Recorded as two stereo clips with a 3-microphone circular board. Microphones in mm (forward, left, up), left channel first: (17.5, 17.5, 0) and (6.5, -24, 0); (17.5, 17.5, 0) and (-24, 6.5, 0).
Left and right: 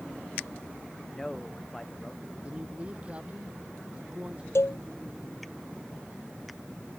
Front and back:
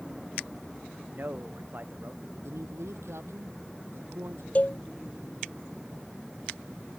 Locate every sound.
1.1 s a man speaking: 155° left
2.4 s a man speaking: 170° right
4.5 s a cowbell: 70° left